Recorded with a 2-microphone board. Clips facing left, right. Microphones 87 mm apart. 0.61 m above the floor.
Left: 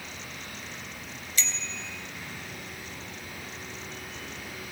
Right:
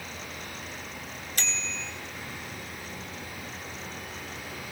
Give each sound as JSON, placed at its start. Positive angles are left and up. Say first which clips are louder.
{"t": 1.4, "sound": "a bicycle bell", "louder": "even", "side_deg": -55, "distance_m": 2.5}